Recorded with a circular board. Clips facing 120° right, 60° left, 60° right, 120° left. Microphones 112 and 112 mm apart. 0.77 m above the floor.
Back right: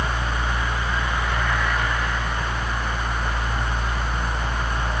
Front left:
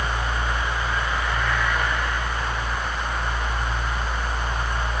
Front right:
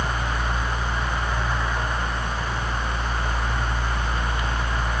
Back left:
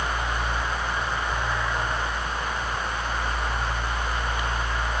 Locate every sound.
Only background noise.